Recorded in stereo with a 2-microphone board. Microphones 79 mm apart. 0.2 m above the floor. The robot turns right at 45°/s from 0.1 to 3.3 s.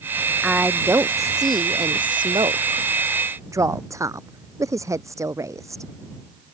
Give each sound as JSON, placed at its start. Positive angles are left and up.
{"t": 0.4, "sound": "a woman speaking", "azimuth_deg": -170}